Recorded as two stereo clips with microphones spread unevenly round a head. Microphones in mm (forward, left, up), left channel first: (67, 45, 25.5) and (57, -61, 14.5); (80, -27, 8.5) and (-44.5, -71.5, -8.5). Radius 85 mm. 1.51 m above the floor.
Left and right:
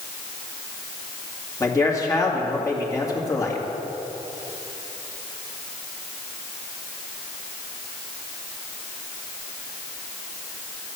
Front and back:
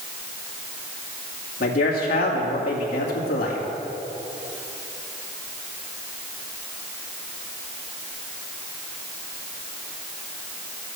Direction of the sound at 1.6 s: 25° left.